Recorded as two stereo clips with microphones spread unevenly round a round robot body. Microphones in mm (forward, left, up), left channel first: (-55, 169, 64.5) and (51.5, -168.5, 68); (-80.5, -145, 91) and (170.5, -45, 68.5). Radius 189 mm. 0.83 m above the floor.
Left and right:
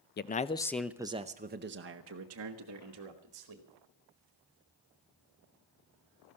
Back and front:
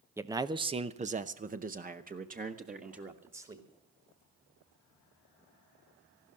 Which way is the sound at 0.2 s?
85° left.